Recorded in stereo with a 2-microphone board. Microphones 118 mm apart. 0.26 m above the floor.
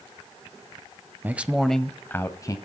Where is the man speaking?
15° right (ahead or behind), 1.0 m; by 2.6 s 30° left (ahead or behind), 1.2 m.